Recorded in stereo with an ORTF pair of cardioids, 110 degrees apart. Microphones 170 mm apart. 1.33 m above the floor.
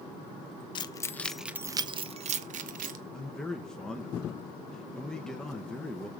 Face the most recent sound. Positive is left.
turn(degrees=5)